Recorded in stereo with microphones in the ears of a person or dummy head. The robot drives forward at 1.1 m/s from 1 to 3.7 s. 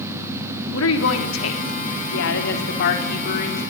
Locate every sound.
0.7 s a woman speaking: 80° left, 3 m; by 3.6 s 45° left (ahead or behind), 4 m